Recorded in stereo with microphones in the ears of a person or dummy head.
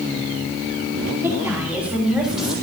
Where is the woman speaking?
15° right (ahead or behind), 3 m; by 2.5 s centre (ahead or behind), 3 m.